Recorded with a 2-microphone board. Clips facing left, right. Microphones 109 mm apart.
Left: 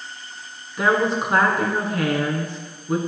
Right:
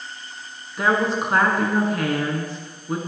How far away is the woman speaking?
About 1.3 m.